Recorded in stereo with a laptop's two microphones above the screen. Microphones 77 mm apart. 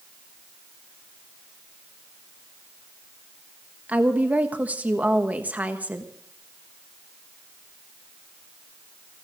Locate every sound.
3.9 s a woman speaking: 20° right (ahead or behind), 1.3 m